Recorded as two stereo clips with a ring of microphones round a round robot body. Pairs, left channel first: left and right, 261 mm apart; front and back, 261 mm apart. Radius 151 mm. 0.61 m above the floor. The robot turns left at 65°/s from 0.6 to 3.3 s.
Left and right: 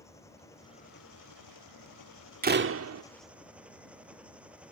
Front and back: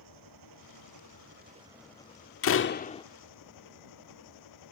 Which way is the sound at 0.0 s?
170° left.